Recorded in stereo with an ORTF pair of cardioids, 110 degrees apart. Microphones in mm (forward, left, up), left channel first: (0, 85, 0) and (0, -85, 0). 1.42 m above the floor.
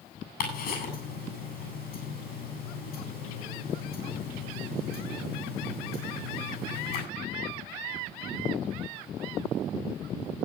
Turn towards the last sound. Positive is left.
turn(degrees=65)